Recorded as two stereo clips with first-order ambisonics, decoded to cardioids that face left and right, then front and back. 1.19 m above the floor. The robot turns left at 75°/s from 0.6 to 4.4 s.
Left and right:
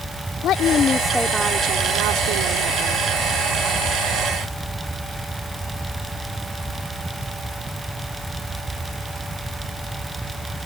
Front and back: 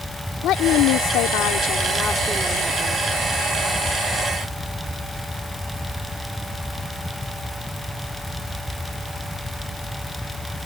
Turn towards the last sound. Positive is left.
turn(degrees=115)